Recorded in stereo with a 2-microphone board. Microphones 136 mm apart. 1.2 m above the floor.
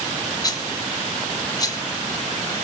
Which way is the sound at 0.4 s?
25° left (ahead or behind).